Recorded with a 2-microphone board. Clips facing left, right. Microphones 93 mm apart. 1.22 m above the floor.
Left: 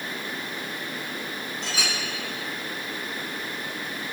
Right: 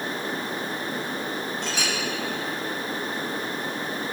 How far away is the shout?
No shout in this recording.